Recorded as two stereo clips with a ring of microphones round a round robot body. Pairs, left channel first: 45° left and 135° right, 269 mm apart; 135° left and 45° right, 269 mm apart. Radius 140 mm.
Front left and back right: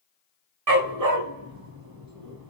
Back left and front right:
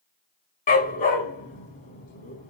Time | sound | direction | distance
0.7 | a dog barking | 165° right | 0.9 m